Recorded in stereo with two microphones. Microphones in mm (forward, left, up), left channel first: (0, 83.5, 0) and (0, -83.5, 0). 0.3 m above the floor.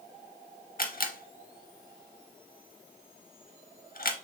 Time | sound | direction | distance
0.8 | a camera shutter | 60° left (ahead or behind) | 0.6 m